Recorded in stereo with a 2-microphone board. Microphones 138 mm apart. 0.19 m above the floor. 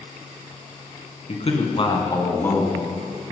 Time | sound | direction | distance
1.3 | a man speaking | 50° left (ahead or behind) | 2.5 m